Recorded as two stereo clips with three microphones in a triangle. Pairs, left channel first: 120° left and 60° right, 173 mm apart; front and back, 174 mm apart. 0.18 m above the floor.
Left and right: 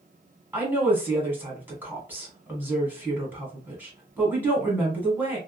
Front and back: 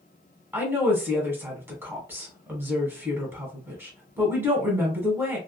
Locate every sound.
0.5 s a woman speaking: 120° right, 1.2 m